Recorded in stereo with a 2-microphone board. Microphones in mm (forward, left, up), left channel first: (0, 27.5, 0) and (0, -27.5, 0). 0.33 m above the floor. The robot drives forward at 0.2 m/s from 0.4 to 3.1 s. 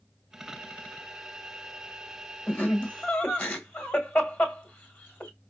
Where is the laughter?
30° left (ahead or behind), 1.4 m.